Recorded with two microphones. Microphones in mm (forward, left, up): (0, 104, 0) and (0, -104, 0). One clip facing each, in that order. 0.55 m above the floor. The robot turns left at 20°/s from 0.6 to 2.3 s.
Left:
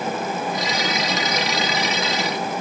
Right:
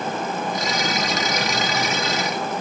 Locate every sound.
Only background noise.